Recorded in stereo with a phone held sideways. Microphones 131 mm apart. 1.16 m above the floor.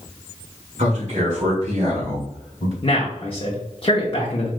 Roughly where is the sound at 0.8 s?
Right.